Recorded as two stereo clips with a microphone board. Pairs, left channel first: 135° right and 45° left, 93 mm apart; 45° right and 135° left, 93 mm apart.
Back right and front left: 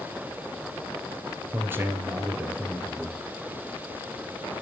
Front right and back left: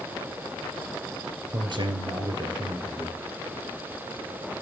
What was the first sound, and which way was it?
A man speaking, 110° left.